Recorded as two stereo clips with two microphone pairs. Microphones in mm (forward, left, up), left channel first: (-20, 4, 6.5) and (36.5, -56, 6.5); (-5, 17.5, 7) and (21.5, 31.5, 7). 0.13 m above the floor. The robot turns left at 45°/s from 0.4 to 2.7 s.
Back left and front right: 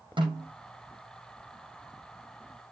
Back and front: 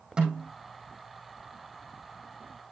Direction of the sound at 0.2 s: 45° right.